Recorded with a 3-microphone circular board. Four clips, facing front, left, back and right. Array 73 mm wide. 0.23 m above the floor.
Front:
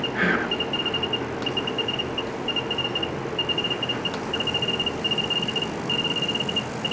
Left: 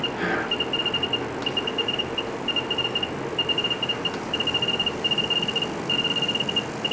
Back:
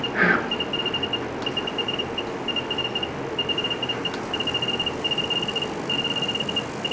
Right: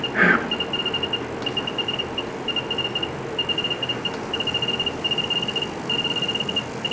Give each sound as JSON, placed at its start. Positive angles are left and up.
{"t": 0.1, "sound": "whispering", "azimuth_deg": -115, "distance_m": 4.0}